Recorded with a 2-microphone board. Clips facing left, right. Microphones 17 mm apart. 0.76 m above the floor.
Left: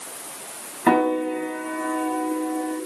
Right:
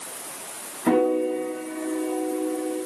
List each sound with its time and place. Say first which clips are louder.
0.9 s a piano: left 1 dB; 60° left (ahead or behind), 2.5 m